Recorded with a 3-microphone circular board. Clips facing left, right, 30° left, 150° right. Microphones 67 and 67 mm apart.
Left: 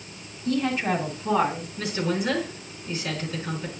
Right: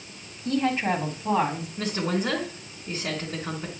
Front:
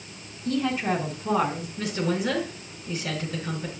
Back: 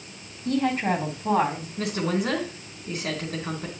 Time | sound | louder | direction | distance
0.5 | a woman speaking | even, back 2 dB | 130° right | 2 m
1.8 | a woman speaking | even, back 1 dB | 135° right | 3 m